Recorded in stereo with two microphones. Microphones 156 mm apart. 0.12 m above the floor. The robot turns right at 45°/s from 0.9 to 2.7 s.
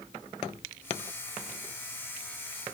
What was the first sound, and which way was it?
Only background noise.